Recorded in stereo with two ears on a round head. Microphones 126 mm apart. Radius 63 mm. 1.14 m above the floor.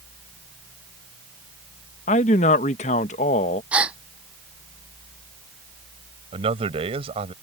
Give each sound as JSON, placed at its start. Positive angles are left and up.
{"t": 2.1, "sound": "a man speaking", "side_deg": 55}
{"t": 3.7, "sound": "a gasp", "side_deg": -10}
{"t": 6.3, "sound": "a man speaking", "side_deg": -40}